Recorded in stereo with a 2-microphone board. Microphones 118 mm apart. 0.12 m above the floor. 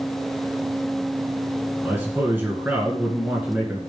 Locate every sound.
1.8 s a man speaking: 15° right (ahead or behind), 1.5 m